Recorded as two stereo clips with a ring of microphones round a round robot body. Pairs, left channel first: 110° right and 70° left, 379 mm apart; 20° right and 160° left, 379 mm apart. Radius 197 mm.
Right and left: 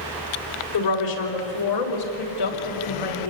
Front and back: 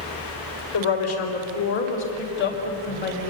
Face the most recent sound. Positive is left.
turn(degrees=-90)